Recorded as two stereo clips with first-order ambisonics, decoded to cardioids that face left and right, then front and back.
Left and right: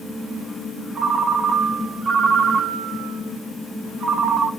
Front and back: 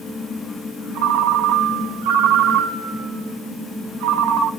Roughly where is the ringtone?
Behind.